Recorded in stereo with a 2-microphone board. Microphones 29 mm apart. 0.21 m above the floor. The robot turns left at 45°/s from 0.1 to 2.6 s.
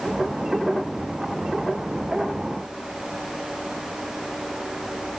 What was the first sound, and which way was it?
Only background noise.